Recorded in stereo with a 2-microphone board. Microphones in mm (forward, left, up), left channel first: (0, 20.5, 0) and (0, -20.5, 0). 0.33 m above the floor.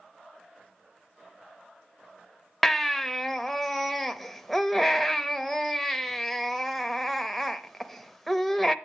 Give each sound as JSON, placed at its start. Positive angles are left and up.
{"t": 2.6, "sound": "a baby crying", "side_deg": 0, "distance_m": 0.7}